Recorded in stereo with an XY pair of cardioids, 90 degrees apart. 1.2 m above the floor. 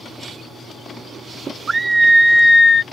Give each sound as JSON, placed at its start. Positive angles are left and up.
{"t": 1.7, "sound": "a scream", "azimuth_deg": -30}